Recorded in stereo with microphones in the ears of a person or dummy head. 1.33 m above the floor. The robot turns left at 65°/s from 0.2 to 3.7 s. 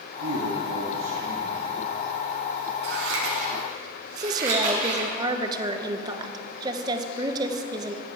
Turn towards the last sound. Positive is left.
turn(degrees=-25)  # may be behind; listen again after turning